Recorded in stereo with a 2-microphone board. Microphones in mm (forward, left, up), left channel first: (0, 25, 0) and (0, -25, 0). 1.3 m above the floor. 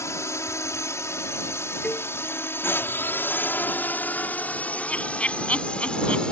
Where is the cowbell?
30° left (ahead or behind).